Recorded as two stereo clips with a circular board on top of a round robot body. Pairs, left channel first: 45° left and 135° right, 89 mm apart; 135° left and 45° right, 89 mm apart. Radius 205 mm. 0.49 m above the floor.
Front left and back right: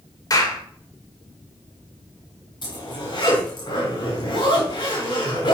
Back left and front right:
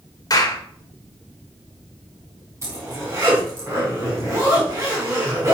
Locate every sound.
0.3 s a clap: 90° left, 2.5 m
2.6 s a zipper: 15° left, 4.5 m